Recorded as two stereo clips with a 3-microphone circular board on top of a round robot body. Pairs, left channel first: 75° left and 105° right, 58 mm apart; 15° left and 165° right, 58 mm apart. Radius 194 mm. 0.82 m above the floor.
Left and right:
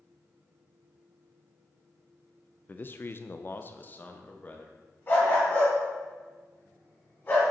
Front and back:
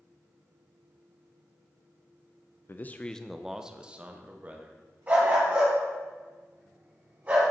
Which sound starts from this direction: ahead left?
A man speaking, at 2.7 s.